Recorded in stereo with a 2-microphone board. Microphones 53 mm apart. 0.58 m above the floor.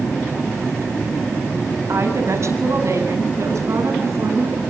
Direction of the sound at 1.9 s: 60° right (ahead or behind).